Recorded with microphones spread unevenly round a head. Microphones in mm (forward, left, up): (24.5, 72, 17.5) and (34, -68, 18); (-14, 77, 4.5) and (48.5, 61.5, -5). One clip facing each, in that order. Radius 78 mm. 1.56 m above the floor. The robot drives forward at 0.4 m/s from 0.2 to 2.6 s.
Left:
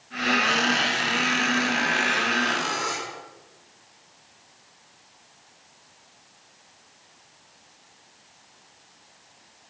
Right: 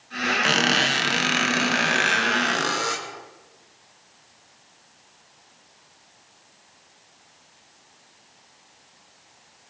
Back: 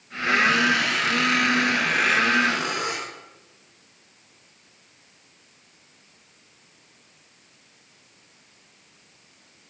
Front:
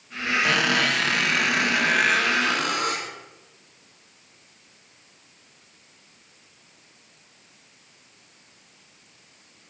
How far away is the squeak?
About 1.2 m.